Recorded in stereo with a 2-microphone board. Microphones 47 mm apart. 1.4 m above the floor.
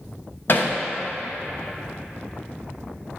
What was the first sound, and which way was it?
Hammering, 50° left (ahead or behind).